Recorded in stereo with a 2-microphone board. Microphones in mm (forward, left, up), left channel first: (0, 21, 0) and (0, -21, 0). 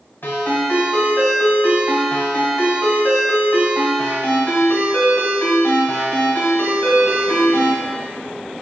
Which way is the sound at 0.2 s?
60° left (ahead or behind).